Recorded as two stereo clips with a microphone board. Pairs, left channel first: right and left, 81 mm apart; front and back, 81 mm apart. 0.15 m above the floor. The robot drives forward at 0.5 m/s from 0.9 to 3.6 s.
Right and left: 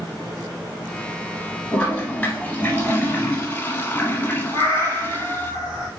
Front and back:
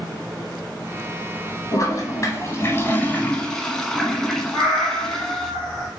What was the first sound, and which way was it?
A toilet flushing, 20° right.